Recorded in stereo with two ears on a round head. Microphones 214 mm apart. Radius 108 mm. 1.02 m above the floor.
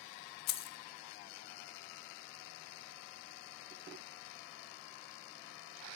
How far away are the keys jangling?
About 0.5 m.